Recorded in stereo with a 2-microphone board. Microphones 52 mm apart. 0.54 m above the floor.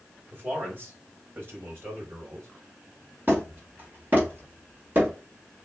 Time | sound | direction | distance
0.3 | a man speaking | 40° right (ahead or behind) | 3 m
3.3 | hammering | 40° right (ahead or behind) | 1.9 m